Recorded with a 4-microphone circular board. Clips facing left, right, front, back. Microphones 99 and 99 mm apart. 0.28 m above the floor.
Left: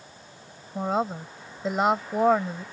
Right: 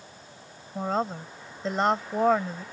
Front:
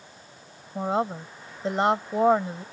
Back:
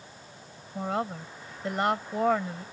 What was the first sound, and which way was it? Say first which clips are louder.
A woman speaking: left 2 dB, front 5 dB; 15° left.